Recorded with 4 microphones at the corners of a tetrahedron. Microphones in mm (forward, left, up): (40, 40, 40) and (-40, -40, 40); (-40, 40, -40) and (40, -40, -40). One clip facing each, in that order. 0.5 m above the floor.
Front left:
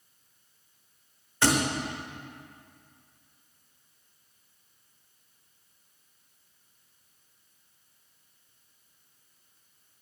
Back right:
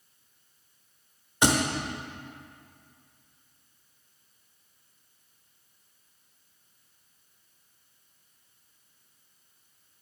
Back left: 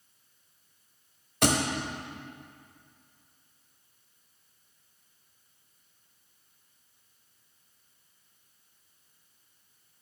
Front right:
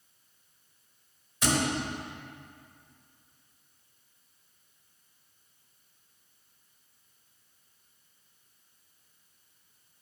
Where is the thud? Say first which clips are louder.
Back right 1 dB, back left 3 dB; 155° left, 0.9 m.